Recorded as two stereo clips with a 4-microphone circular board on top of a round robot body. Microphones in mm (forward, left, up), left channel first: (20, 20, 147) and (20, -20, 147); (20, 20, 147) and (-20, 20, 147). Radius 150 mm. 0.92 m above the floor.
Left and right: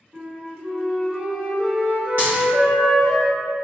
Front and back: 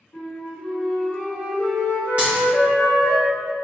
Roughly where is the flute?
Ahead right.